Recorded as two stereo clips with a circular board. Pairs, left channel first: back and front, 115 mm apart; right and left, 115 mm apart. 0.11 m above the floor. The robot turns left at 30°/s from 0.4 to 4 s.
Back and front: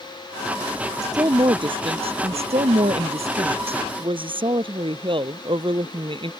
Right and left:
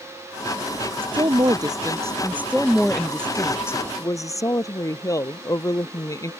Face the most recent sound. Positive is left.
turn(degrees=-35)